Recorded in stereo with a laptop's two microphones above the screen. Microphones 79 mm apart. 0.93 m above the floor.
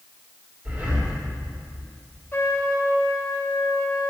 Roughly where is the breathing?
Right.